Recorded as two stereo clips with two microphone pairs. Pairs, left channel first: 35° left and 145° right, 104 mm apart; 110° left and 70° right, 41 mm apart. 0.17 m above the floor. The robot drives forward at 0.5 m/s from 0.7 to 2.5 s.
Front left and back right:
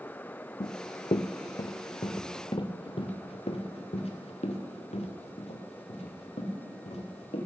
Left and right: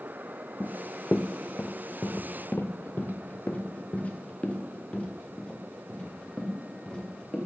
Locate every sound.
0.6 s running footsteps: 60° left, 0.6 m; by 7.5 s 40° left, 3.5 m